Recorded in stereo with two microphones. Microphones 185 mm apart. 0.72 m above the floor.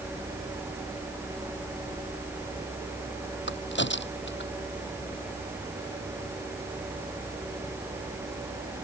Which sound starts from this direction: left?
A crack, at 3.5 s.